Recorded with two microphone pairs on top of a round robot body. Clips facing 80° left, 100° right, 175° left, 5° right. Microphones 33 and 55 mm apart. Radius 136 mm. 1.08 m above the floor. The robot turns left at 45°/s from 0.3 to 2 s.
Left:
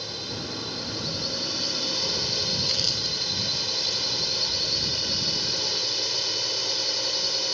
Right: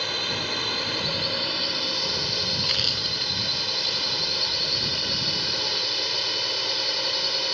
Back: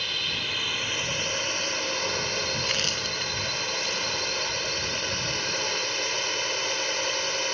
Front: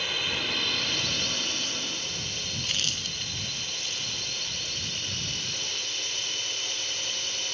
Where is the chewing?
145° right.